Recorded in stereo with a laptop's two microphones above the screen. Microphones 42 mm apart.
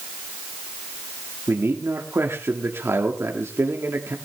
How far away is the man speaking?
About 1.8 m.